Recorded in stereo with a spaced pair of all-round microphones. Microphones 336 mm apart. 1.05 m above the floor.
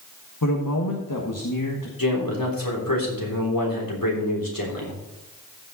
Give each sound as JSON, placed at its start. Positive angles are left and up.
{"t": 0.4, "sound": "a man speaking", "side_deg": 70, "distance_m": 1.6}
{"t": 2.0, "sound": "a man speaking", "side_deg": 80, "distance_m": 3.5}